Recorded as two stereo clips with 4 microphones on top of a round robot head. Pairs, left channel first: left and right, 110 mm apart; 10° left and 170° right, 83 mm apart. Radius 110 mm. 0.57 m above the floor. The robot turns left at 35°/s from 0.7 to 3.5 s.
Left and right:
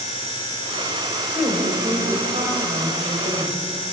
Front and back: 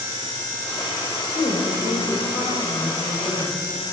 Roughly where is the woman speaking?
Ahead.